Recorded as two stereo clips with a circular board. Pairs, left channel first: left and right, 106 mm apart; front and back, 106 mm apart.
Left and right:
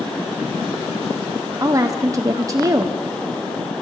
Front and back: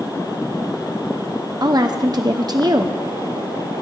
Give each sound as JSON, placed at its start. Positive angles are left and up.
{"t": 1.6, "sound": "a woman speaking", "azimuth_deg": -140, "distance_m": 0.7}